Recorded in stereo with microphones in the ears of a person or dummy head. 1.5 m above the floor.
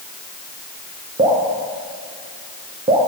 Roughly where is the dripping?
Right.